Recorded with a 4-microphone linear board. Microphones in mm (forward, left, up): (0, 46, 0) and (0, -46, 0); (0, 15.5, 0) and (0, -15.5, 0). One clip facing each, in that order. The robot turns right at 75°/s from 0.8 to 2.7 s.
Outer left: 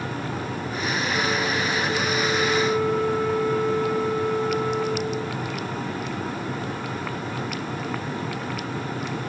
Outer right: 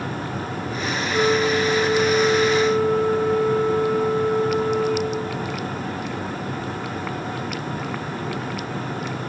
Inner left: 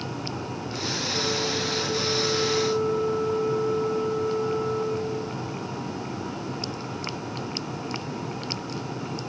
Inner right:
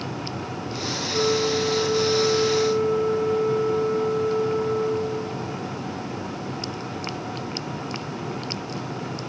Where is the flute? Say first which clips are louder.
Outer right 9 dB, inner right 7 dB; 150° right, 3 m; by 5.5 s 30° right, 3 m.